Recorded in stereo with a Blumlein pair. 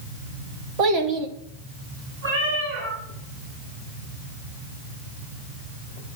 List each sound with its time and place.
0.8 s a child speaking: 40° right, 1.3 m
2.2 s a cat meowing: 60° right, 4.5 m